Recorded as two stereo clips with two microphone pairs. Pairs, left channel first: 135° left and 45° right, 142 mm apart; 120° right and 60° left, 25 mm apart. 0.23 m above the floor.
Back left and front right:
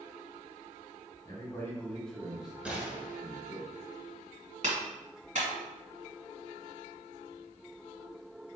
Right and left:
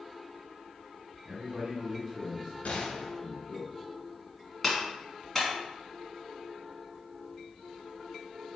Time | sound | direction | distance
1.2 | a man speaking | 85° left | 1.6 m
2.6 | a gunshot | 120° right | 1.4 m
4.6 | a clap | 45° right | 1.7 m